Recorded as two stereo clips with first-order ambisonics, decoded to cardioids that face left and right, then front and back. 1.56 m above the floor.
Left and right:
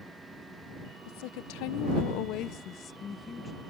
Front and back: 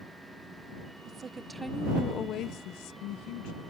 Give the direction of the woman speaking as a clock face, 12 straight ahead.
8 o'clock.